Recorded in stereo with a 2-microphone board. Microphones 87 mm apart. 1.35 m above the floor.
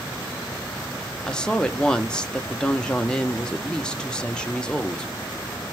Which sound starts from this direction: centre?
A woman speaking, at 1.3 s.